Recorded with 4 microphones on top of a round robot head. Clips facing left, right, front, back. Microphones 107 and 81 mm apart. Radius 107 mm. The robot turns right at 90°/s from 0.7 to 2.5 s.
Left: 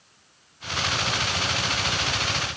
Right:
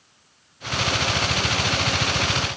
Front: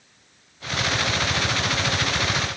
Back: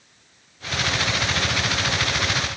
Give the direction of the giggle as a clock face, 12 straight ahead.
I don't hear a giggle.